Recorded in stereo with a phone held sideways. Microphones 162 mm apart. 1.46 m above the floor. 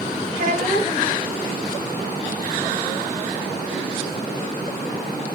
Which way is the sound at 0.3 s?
45° right (ahead or behind).